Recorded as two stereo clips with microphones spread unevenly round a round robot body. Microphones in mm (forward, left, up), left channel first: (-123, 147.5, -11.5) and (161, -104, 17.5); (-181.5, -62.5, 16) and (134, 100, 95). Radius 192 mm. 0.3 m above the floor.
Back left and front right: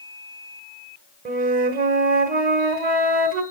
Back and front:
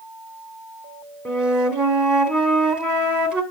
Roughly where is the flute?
Right.